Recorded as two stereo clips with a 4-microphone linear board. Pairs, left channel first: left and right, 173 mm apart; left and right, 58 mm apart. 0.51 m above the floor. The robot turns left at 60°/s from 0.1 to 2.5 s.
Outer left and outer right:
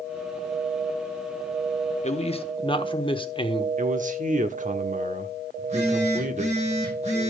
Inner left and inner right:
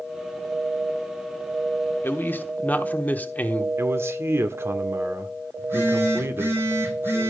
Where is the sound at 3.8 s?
45° right (ahead or behind), 1.1 m.